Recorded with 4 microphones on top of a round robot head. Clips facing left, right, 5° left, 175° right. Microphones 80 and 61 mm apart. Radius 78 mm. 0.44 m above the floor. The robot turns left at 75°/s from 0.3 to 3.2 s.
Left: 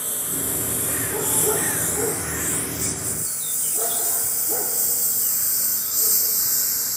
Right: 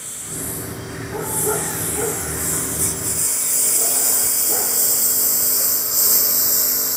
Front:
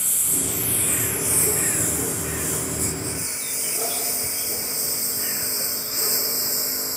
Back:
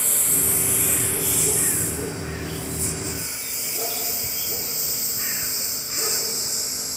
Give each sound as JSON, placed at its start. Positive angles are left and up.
{"t": 0.0, "sound": "a lawn mower", "azimuth_deg": 140}